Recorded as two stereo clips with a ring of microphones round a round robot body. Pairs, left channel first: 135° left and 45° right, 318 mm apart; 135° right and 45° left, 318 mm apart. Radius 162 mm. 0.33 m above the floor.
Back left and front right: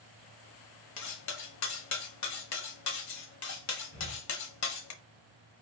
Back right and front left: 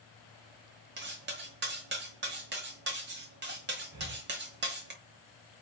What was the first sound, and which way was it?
Cutlery clinking, 100° left.